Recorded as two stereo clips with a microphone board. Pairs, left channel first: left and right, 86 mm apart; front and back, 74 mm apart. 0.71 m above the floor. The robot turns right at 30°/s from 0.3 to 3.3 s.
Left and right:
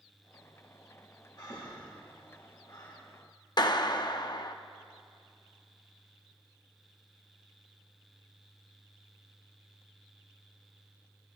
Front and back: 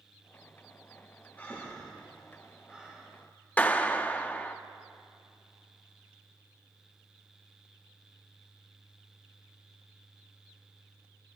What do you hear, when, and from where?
1.4 s breathing: 60° left, 2.5 m; by 3.0 s 110° left, 2.5 m
3.6 s a clap: 65° left, 0.6 m